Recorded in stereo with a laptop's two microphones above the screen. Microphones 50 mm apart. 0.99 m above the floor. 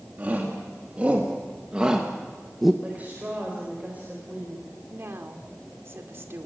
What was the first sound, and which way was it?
A shout, 35° right (ahead or behind).